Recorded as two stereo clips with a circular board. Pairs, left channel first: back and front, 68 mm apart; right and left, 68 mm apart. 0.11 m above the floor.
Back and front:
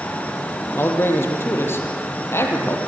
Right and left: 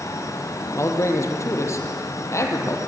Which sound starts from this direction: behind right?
A man speaking, at 0.8 s.